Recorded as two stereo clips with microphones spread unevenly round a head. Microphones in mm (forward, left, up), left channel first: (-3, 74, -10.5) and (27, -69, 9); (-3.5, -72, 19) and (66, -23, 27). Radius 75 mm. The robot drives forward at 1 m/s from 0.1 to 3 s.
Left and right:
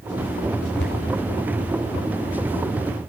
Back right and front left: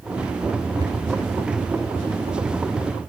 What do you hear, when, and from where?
0.8 s a cupboard door: 100° left, 5.5 m